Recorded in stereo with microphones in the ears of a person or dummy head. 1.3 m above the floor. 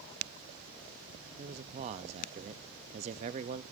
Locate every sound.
1.4 s a man speaking: 35° right (ahead or behind), 0.6 m